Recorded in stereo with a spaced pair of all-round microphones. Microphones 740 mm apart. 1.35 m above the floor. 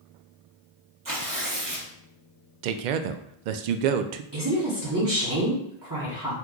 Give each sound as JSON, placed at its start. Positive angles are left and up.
{"t": 1.1, "sound": "tearing paper", "side_deg": -30, "distance_m": 0.7}
{"t": 2.6, "sound": "a man speaking", "side_deg": -80, "distance_m": 0.5}
{"t": 4.3, "sound": "a woman speaking", "side_deg": -30, "distance_m": 0.9}